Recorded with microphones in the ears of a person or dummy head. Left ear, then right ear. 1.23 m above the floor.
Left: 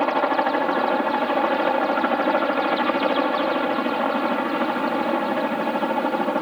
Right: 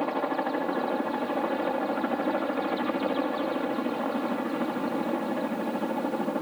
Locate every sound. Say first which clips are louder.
0.0 s a helicopter: left 8 dB; 40° left (ahead or behind)